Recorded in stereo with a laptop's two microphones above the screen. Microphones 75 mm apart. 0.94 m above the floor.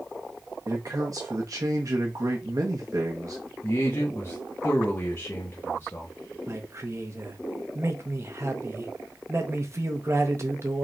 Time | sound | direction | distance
0.7 | a man speaking | 45° right (ahead or behind) | 1.0 m
3.6 | a man speaking | 35° left (ahead or behind) | 0.9 m
6.5 | a man speaking | 35° right (ahead or behind) | 0.9 m